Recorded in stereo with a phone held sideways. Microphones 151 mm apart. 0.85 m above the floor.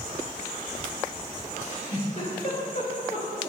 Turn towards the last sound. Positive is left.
turn(degrees=55)  # may be behind; listen again after turning